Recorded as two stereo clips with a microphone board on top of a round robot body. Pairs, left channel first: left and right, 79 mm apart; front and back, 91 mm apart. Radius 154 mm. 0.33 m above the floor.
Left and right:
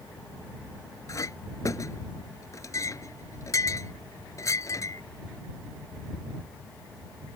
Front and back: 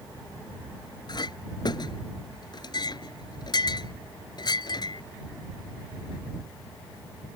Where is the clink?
40° left.